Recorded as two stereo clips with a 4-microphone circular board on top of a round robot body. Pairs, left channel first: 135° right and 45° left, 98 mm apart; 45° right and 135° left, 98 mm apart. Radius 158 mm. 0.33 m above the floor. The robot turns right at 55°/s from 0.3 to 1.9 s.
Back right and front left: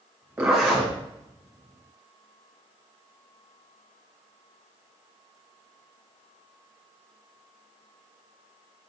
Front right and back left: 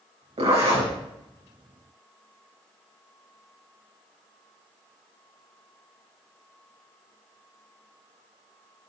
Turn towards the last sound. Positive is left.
turn(degrees=-155)